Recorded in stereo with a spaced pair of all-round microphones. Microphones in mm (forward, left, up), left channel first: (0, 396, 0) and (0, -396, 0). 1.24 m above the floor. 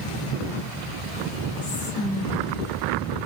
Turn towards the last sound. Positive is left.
turn(degrees=75)  # may be behind; listen again after turning